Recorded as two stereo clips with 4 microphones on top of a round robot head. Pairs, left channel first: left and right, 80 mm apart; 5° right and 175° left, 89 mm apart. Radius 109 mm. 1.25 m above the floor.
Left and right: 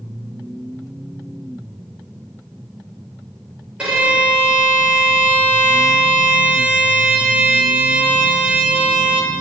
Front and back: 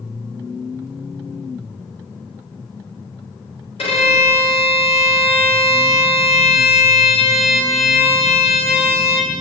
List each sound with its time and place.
3.8 s a violin: 10° right, 5.5 m